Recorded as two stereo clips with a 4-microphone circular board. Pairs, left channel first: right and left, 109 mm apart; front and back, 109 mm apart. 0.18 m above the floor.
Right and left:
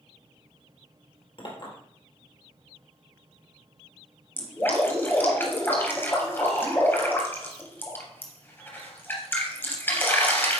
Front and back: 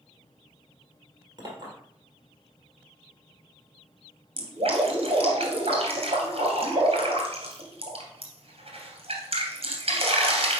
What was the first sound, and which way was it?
A clink, 125° right.